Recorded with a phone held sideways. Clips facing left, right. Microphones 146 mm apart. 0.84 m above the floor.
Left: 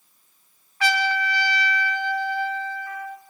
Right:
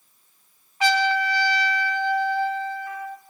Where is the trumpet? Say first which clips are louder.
Right 3 dB; 20° right (ahead or behind), 0.8 m.